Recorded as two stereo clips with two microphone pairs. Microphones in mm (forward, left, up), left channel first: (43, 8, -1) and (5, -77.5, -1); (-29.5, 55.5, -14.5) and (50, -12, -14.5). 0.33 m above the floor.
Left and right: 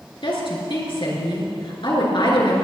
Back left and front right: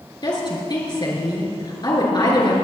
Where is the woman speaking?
95° left, 4.5 m.